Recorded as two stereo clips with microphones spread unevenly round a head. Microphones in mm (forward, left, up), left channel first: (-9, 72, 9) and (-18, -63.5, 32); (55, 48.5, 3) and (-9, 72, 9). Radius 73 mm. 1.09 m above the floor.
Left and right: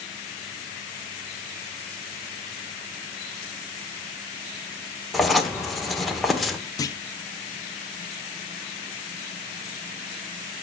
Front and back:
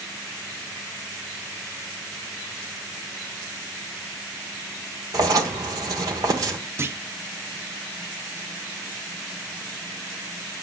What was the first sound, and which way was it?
Writing, straight behind.